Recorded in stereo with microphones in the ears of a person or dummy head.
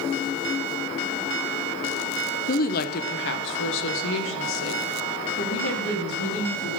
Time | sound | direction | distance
2.5 | a woman speaking | 35° left (ahead or behind) | 0.7 m